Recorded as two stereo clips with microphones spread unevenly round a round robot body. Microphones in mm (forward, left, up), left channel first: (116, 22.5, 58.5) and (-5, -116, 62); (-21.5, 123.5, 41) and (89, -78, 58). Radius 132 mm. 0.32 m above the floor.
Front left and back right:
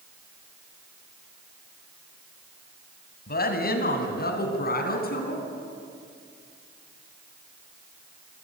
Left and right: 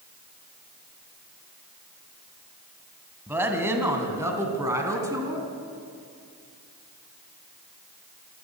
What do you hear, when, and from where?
3.3 s a woman speaking: 20° left, 3 m; by 5.4 s 15° left, 4 m